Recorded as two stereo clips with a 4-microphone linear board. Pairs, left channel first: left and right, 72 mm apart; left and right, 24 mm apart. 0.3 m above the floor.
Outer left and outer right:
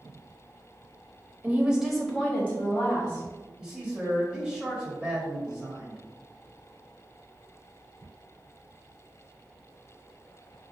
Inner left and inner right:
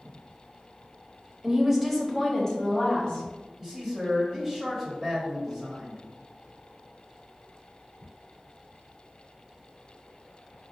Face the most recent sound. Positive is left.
turn(degrees=-15)  # may be behind; listen again after turning